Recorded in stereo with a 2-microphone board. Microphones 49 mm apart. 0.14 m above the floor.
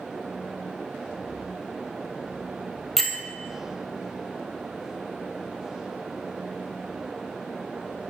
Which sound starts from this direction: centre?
A bell, at 3.0 s.